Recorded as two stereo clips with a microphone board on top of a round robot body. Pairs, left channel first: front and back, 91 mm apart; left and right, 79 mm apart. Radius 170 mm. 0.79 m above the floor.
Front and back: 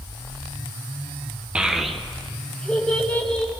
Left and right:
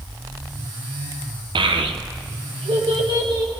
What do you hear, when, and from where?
1.6 s a child speaking: 100° right, 0.6 m; by 3.5 s 75° right, 2.0 m